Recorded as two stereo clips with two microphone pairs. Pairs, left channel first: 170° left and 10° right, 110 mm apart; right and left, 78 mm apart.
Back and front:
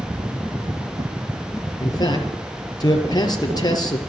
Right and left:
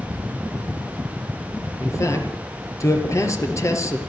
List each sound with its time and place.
1.8 s a man speaking: 140° right, 4.5 m